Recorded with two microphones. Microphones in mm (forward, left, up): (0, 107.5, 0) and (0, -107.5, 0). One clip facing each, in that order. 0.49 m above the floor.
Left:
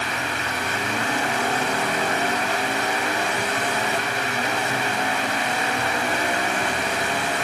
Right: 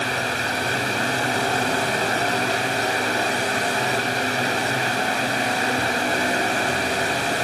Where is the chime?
I don't hear a chime.